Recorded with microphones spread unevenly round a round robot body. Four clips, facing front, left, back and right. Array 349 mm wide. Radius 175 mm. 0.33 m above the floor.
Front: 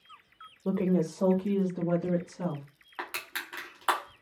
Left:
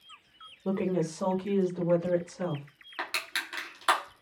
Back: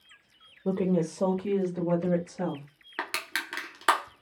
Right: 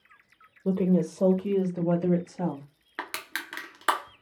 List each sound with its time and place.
0.7 s a woman speaking: 90° right, 0.9 m; by 2.6 s 125° right, 2 m
3.0 s crushing: 150° right, 0.8 m